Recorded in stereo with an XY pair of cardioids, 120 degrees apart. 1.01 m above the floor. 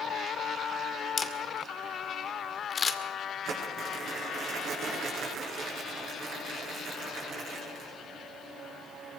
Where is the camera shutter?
30° left, 2 m.